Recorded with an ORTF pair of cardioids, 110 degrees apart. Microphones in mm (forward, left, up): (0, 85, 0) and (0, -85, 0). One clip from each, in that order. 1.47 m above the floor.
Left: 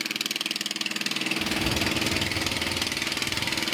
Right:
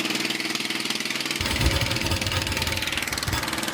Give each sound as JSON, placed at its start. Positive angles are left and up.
{"t": 1.4, "sound": "writing", "azimuth_deg": -65, "distance_m": 3.0}